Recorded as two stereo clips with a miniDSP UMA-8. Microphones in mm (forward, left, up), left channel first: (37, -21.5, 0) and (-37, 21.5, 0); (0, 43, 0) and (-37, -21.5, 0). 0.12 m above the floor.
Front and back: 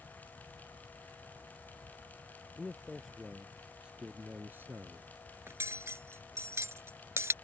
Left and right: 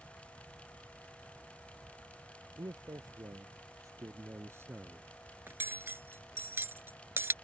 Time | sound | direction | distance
2.6 | a man speaking | 115° right | ?
5.5 | cutlery clinking | 165° right | ?